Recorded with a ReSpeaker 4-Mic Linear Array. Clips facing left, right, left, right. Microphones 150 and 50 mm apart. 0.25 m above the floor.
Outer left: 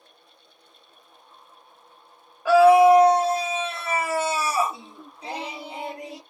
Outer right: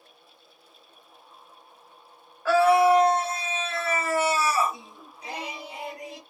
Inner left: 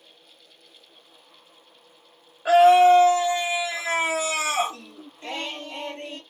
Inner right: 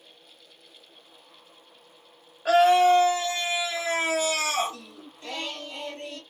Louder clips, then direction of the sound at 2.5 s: Outer left 5 dB, inner left 4 dB; 15° left (ahead or behind).